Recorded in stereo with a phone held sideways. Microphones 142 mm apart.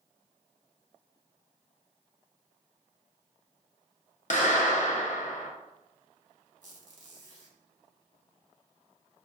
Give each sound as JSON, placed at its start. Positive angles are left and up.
{"t": 4.3, "sound": "a clap", "side_deg": 60, "distance_m": 0.6}
{"t": 6.6, "sound": "a squeak", "side_deg": -65, "distance_m": 1.0}